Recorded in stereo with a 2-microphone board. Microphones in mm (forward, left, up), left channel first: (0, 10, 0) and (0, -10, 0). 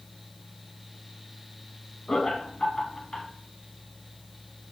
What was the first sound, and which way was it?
Laughter, 30° left (ahead or behind).